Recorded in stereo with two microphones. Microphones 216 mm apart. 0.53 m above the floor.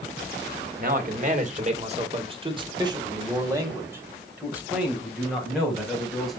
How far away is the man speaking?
About 2 m.